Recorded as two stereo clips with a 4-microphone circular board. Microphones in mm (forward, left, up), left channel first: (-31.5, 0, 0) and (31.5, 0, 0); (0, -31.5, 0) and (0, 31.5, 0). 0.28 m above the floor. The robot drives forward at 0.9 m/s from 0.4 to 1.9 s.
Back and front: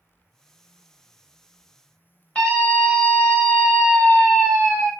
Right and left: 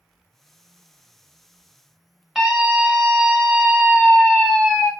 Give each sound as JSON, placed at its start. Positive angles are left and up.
{"t": 2.4, "sound": "a scream", "azimuth_deg": 160, "distance_m": 1.1}